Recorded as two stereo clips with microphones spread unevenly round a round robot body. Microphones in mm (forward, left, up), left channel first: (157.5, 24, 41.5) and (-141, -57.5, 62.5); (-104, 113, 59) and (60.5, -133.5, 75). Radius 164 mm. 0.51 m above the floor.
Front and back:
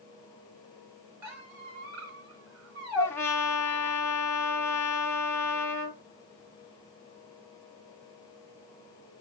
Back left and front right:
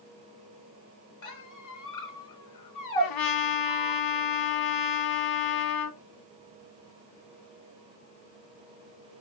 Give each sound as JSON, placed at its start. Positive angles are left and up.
{"t": 1.2, "sound": "a squeak", "azimuth_deg": 150, "distance_m": 2.0}
{"t": 3.0, "sound": "a trumpet", "azimuth_deg": 100, "distance_m": 0.9}